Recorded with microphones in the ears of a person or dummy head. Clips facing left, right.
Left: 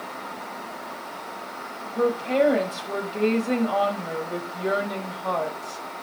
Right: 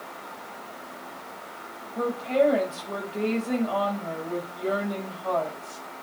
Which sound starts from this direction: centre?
A woman speaking, at 1.9 s.